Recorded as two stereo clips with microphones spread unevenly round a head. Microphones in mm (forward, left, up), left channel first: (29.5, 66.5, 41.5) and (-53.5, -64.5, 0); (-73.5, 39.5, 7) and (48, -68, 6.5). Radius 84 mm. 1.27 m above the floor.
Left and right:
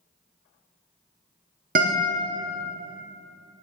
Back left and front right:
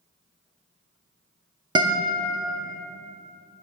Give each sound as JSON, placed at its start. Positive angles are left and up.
{"t": 1.8, "sound": "a guitar", "azimuth_deg": -90, "distance_m": 0.8}